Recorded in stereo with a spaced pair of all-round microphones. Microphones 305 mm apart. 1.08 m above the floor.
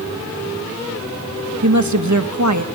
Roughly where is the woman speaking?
Right.